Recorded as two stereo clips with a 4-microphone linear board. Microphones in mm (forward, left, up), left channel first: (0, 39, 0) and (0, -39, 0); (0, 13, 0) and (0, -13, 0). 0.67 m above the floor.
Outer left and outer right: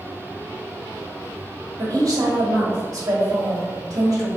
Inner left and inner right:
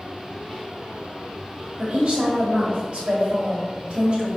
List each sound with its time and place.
1.8 s a woman speaking: 50° right (ahead or behind), 1.6 m